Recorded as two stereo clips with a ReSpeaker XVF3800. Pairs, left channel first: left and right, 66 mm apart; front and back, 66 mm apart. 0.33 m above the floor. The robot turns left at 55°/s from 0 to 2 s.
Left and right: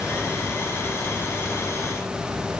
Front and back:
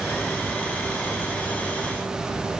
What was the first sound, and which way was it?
Only background noise.